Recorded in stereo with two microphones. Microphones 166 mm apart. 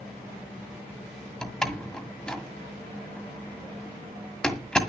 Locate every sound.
1.4 s a door slam: 5° left (ahead or behind), 1.6 m